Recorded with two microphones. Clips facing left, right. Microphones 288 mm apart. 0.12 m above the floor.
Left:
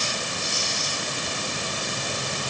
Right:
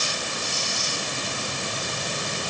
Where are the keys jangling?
No keys jangling in this recording.